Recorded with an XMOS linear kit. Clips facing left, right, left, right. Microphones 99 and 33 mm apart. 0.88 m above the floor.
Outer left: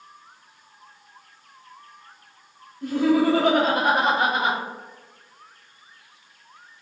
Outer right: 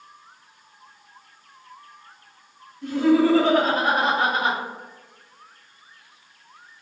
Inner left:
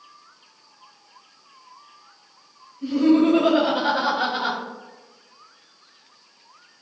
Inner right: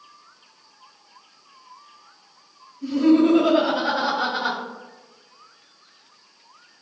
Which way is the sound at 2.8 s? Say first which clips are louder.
Outer right 1 dB, even; 45° left (ahead or behind).